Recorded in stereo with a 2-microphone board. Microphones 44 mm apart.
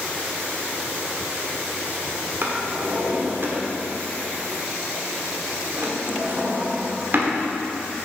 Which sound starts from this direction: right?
A drawer, at 2.4 s.